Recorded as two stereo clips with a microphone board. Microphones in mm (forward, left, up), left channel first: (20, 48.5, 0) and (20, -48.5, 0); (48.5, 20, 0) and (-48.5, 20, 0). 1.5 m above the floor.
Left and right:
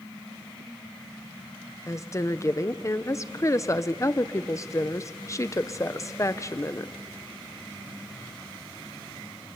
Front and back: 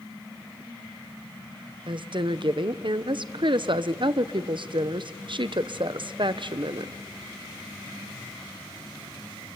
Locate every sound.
1.9 s a woman speaking: 145° left, 0.8 m